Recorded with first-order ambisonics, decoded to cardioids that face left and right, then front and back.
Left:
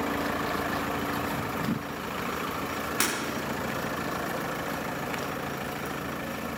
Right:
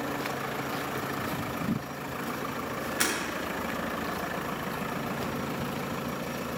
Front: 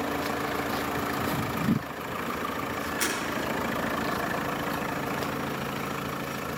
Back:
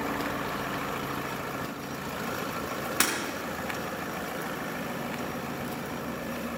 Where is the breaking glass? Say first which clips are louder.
Even, back 3 dB; 155° left, 7.5 m.